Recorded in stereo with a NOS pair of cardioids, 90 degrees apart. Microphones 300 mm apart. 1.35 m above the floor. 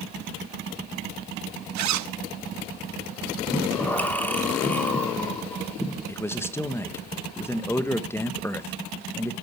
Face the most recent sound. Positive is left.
turn(degrees=10)